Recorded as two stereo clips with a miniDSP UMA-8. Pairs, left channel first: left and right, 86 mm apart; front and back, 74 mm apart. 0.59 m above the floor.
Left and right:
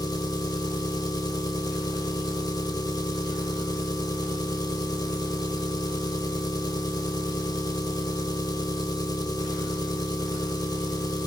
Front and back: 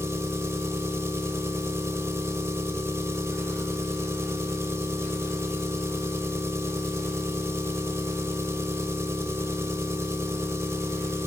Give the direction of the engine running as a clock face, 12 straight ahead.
8 o'clock.